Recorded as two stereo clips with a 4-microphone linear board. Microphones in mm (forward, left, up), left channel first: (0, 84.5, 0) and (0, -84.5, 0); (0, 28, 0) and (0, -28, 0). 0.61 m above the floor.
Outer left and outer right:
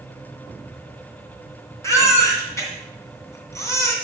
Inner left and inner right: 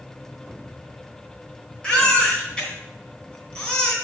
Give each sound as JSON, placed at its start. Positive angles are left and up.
{"t": 1.8, "sound": "a baby crying", "side_deg": 15, "distance_m": 2.0}